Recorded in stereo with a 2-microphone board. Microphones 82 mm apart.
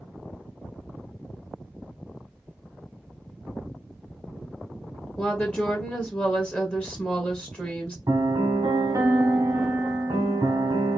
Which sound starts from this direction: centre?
A woman speaking, at 5.2 s.